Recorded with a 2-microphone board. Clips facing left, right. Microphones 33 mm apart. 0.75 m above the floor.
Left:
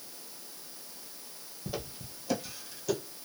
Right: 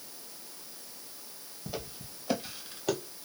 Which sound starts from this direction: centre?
Footsteps, at 1.7 s.